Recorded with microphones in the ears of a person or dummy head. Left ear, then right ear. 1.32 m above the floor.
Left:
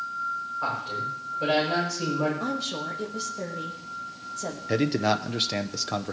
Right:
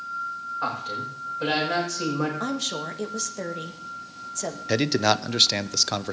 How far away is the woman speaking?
About 1.5 m.